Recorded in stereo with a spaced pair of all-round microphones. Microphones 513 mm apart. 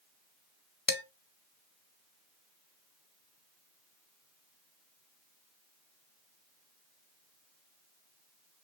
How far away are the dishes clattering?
About 0.7 m.